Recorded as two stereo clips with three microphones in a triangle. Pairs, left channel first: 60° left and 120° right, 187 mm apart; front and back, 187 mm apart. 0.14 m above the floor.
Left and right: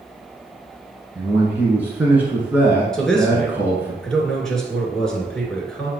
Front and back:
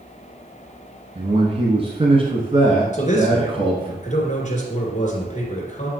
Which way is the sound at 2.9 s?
25° right.